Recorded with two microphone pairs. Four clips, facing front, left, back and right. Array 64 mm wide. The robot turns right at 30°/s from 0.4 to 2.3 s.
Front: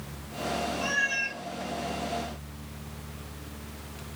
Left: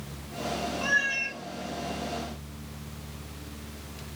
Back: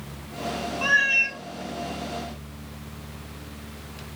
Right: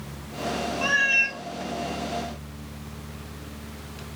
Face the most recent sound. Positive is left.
turn(degrees=-85)